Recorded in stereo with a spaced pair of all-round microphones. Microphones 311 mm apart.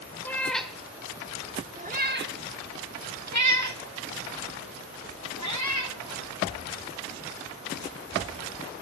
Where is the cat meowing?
5° left (ahead or behind), 1.8 m; by 6.0 s 70° right (ahead or behind), 2.5 m.